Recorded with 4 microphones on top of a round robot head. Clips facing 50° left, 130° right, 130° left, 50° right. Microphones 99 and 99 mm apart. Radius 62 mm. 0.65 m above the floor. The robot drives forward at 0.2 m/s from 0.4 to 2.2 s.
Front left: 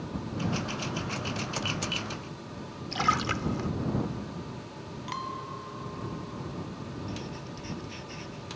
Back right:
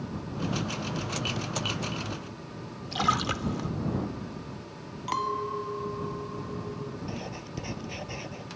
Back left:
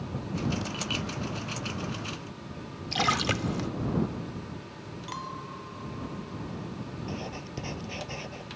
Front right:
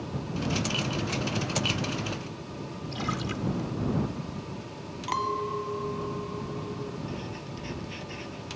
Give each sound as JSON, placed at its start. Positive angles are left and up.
{"t": 2.9, "sound": "a splash", "azimuth_deg": 150}
{"t": 5.1, "sound": "a clink", "azimuth_deg": -85}
{"t": 7.1, "sound": "writing", "azimuth_deg": -175}